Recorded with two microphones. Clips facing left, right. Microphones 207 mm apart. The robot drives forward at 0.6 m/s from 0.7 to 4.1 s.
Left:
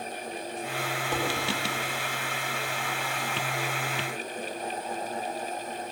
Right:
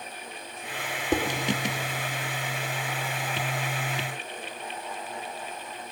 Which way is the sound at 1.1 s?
45° right (ahead or behind).